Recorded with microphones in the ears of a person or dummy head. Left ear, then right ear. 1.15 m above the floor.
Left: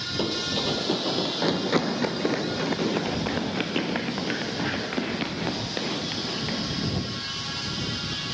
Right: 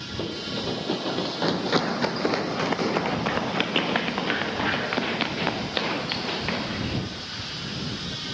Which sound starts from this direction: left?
Running footsteps, at 0.2 s.